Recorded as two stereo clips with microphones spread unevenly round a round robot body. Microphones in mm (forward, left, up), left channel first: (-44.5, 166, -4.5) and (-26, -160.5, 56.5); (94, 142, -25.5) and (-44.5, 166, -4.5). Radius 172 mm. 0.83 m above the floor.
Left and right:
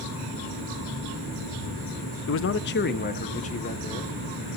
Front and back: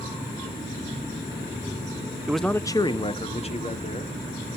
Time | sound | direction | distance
2.3 | a man speaking | 80° left | 0.6 m